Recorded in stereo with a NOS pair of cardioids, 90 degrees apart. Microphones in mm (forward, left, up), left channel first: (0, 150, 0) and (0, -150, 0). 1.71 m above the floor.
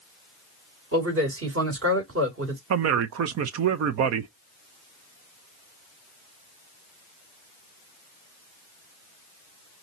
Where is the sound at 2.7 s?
60° right, 0.9 m.